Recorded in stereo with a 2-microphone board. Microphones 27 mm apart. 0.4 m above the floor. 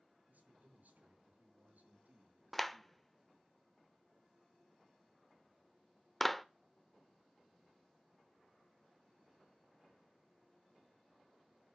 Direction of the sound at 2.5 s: 5° left (ahead or behind).